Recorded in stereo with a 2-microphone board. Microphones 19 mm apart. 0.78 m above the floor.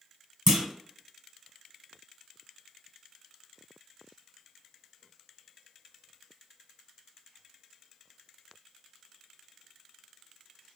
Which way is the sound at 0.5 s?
30° right (ahead or behind).